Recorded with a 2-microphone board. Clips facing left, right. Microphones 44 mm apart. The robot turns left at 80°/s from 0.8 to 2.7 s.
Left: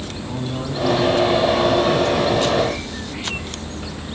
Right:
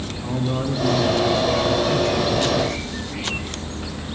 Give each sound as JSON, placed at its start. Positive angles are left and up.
{"t": 0.2, "sound": "a man speaking", "azimuth_deg": -45, "distance_m": 7.5}